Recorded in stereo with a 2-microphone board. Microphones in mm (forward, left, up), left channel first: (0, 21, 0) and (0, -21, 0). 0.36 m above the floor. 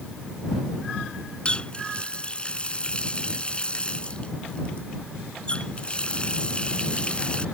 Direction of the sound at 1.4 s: 25° left (ahead or behind).